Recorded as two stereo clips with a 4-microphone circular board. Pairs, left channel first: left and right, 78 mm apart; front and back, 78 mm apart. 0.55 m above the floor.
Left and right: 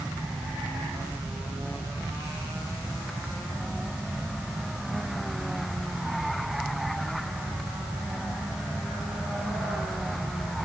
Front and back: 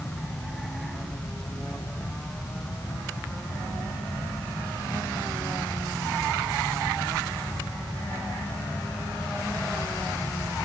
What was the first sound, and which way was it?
Only background noise.